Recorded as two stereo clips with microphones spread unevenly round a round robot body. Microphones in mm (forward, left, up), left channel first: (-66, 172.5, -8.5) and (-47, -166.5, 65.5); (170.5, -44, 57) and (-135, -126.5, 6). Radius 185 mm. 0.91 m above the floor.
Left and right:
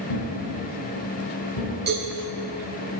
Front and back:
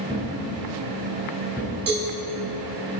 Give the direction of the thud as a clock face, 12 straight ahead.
8 o'clock.